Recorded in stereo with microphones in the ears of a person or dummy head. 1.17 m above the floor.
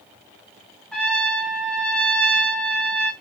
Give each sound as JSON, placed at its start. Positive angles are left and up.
{"t": 0.9, "sound": "a trumpet", "side_deg": 5, "distance_m": 1.1}